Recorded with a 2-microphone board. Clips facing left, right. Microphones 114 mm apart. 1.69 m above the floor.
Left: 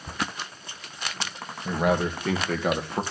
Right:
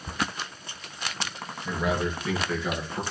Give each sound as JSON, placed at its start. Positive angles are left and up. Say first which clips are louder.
{"t": 1.6, "sound": "a man speaking", "louder": "left 4 dB", "side_deg": 55, "distance_m": 2.5}